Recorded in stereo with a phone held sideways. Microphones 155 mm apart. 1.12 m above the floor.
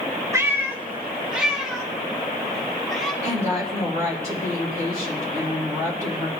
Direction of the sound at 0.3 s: 20° right (ahead or behind).